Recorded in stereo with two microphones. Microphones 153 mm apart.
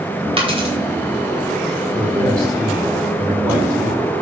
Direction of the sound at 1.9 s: 20° right (ahead or behind).